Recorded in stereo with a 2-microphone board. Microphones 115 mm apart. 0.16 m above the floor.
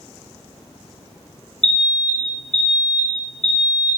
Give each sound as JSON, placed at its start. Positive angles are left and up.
{"t": 1.6, "sound": "an alarm", "side_deg": 75, "distance_m": 3.0}